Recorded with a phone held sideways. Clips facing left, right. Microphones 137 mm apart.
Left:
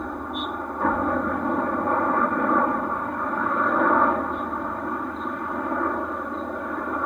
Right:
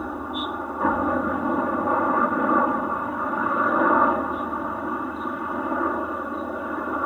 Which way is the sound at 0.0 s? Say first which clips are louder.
Right 1 dB; 5° right (ahead or behind).